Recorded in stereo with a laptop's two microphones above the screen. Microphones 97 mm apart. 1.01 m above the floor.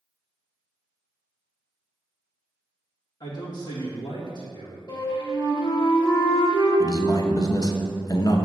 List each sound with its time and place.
3.2 s a man speaking: 45° left (ahead or behind), 1.7 m
4.9 s a flute: 45° left (ahead or behind), 1.6 m
6.8 s a man speaking: 40° left (ahead or behind), 0.7 m